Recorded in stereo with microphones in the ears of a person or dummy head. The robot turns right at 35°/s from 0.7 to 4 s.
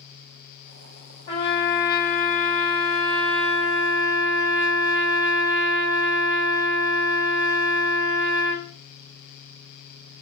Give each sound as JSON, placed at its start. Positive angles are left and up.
{"t": 1.3, "sound": "a trumpet", "azimuth_deg": 140, "distance_m": 1.3}